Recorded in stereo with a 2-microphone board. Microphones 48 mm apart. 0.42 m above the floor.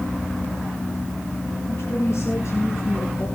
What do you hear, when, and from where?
1.7 s a woman speaking: 60° left (ahead or behind), 3.5 m; by 3.3 s 75° left (ahead or behind), 5.5 m